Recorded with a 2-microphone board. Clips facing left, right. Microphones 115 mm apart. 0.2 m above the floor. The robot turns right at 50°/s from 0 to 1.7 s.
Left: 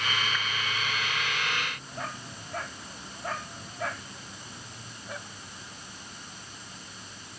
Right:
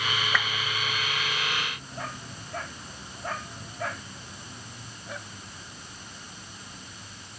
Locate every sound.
0.3 s a whoosh: 80° right